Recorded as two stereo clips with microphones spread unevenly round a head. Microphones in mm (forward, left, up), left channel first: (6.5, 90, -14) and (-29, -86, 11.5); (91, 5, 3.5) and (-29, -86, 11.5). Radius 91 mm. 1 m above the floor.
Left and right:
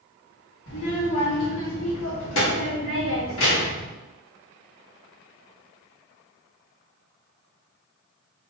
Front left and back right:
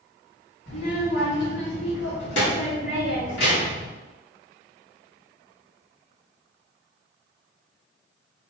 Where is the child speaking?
60° left, 1.3 m.